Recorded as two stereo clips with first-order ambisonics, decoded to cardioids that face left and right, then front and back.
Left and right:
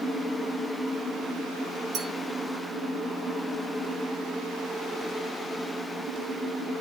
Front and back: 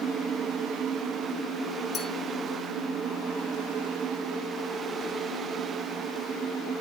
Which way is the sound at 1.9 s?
55° right.